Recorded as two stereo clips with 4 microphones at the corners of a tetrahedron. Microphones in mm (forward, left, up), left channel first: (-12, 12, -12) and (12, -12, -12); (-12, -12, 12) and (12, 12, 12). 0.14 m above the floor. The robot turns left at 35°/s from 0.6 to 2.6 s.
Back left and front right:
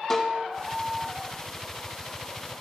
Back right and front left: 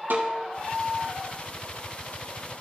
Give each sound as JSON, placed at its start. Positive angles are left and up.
{"t": 0.1, "sound": "a snare drum", "azimuth_deg": 55, "distance_m": 4.0}